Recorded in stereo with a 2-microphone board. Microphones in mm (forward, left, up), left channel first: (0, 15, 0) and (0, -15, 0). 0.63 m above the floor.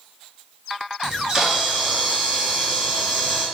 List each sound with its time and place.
1.0 s a camera shutter: 25° right (ahead or behind), 1.0 m